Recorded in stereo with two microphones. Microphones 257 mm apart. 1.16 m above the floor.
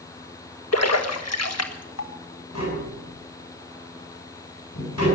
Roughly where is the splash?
Left.